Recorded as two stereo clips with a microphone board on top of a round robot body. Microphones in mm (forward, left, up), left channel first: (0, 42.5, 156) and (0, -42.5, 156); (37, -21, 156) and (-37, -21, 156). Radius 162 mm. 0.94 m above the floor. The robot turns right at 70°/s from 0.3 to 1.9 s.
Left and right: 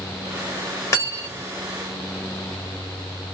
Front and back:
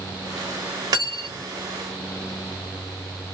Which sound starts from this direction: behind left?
Cutlery clinking, at 0.9 s.